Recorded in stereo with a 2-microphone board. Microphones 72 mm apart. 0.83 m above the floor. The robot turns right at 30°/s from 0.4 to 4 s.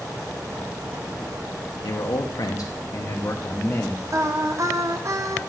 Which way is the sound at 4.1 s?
50° right (ahead or behind).